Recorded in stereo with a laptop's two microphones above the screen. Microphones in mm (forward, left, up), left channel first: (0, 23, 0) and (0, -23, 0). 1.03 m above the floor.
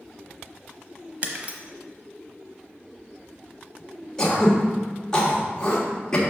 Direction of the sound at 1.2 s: 35° right (ahead or behind).